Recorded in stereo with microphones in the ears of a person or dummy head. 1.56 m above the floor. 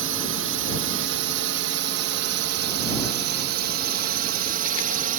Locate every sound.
0.0 s a drone: 65° right (ahead or behind); by 5.2 s 45° right (ahead or behind)